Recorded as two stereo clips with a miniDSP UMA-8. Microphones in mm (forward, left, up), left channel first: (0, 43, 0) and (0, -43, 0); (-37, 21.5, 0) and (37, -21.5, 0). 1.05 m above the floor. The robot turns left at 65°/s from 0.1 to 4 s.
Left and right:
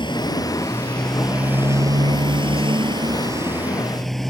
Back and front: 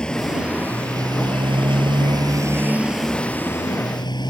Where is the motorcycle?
70° left; by 4.3 s 175° left.